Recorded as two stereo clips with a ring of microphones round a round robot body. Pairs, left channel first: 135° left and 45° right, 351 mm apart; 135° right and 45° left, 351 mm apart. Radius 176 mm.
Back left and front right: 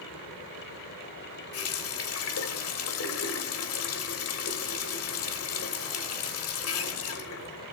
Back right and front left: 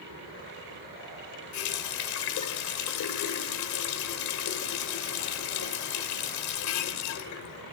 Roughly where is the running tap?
Behind.